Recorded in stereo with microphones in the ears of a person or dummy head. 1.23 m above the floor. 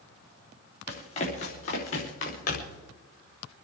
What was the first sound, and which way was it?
Running footsteps, 40° left (ahead or behind).